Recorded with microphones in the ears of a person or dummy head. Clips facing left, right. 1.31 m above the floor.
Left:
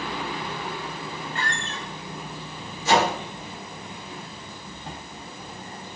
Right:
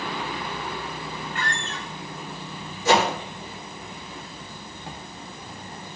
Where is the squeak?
30° left (ahead or behind), 0.6 m.